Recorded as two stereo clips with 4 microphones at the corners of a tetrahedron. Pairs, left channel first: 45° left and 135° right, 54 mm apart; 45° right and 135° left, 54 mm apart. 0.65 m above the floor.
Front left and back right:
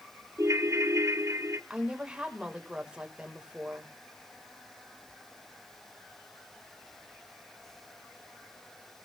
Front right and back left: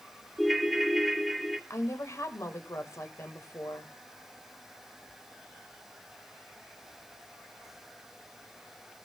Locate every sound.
0.4 s a ringtone: 135° right, 1.1 m
1.7 s a woman speaking: 65° right, 3 m